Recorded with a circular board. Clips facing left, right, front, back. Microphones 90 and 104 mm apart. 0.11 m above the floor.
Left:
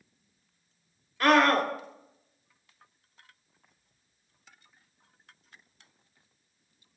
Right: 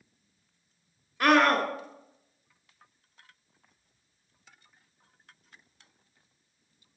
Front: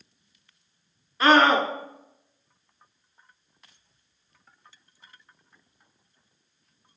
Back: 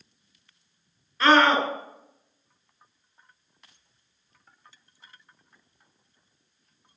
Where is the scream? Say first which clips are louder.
Even, front 1 dB; 50° right, 1.2 m.